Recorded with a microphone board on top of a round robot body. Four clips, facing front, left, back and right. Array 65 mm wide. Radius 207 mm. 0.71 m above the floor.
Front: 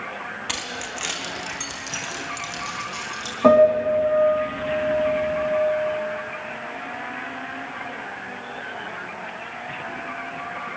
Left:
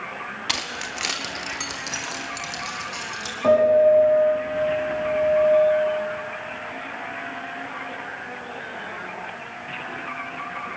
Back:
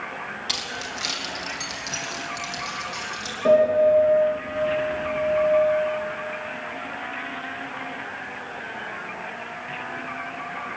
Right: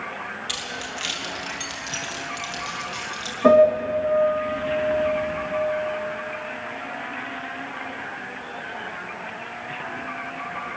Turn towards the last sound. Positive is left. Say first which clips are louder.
# even, front 2 dB
turn(degrees=5)